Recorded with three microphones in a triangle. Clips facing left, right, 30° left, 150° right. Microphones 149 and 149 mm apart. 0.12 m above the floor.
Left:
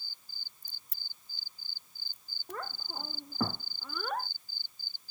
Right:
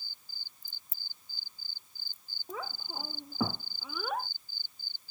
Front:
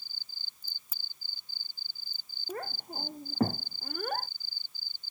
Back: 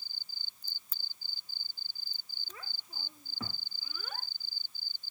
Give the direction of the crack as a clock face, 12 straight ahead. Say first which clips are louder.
Left 3 dB, front 1 dB; 8 o'clock.